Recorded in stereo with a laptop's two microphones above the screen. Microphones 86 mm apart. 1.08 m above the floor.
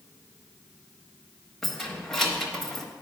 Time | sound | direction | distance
1.6 | keys jangling | centre (ahead or behind) | 1.0 m